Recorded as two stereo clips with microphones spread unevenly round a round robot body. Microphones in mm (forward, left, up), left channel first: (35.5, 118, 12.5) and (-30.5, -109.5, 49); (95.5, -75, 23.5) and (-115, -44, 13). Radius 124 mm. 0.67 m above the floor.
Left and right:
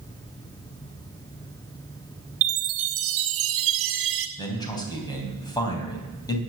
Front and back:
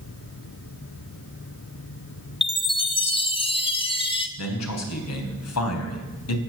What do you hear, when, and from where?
2.4 s a chime: 75° right, 1.6 m
4.4 s a man speaking: straight ahead, 3.5 m